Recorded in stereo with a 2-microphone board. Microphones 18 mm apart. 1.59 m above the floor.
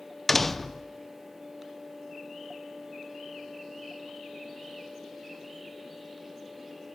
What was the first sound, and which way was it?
A door slam, 10° left (ahead or behind).